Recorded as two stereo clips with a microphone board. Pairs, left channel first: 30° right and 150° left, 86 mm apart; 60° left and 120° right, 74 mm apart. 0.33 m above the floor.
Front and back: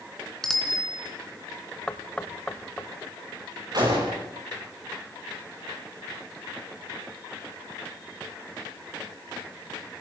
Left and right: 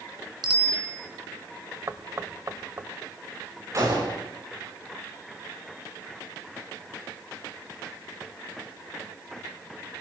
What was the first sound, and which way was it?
A bicycle bell, 115° right.